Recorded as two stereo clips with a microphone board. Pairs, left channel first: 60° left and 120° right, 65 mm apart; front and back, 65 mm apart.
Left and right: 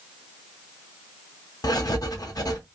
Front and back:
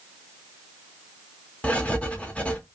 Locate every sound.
1.6 s writing: 70° left, 0.7 m